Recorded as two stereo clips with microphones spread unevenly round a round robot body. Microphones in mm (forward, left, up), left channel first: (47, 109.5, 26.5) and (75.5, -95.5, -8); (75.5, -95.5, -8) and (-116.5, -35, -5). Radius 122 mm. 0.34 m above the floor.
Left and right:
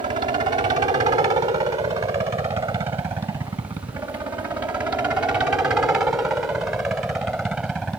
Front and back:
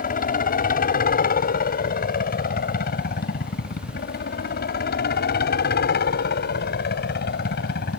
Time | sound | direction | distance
0.0 | a helicopter | 35° right | ?